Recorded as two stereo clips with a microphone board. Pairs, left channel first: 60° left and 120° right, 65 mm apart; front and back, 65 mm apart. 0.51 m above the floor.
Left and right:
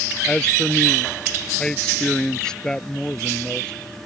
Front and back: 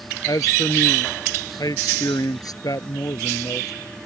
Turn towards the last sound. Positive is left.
turn(degrees=-20)